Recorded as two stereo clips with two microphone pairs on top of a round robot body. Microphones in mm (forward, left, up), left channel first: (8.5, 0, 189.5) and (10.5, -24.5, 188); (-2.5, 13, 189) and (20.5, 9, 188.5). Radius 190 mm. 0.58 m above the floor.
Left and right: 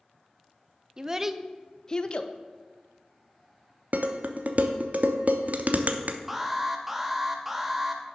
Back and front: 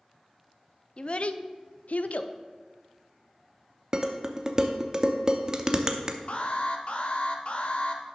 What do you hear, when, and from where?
1.0 s a child speaking: 145° right, 0.6 m; by 2.3 s 140° left, 0.7 m
3.9 s dishes clattering: 70° right, 0.7 m
6.3 s an alarm: 160° right, 1.2 m